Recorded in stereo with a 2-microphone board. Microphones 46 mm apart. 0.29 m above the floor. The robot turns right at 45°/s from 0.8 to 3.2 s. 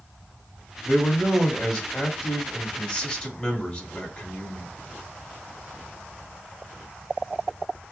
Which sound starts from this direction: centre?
A man speaking, at 0.8 s.